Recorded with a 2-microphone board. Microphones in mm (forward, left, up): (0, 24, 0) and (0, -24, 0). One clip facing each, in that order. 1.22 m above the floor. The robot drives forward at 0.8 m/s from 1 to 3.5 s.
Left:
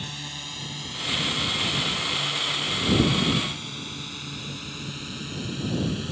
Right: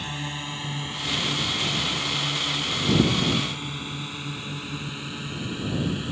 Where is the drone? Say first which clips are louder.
Right 4 dB; 25° right (ahead or behind); by 6.1 s 15° right (ahead or behind).